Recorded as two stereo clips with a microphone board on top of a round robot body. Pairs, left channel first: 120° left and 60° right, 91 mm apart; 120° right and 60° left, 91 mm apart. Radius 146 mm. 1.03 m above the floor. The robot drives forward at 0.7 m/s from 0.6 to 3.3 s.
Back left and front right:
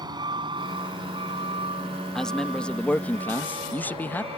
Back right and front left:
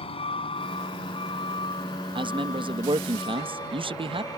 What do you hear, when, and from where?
0.0 s a vehicle: 105° right; by 4.4 s 70° right
2.1 s a man speaking: 35° left; by 4.3 s 50° left